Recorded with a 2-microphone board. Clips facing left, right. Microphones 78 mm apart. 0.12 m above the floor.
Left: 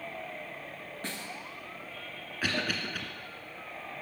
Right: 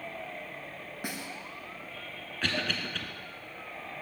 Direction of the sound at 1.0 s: 15° right (ahead or behind).